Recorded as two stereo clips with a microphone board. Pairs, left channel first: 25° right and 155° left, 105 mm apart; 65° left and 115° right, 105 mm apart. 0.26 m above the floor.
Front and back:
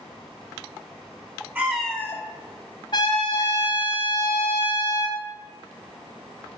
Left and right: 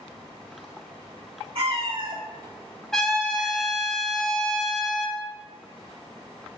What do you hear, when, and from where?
1.6 s a cat meowing: 130° right, 0.6 m; by 3.9 s 20° right, 1.5 m
2.9 s a trumpet: 15° right, 0.8 m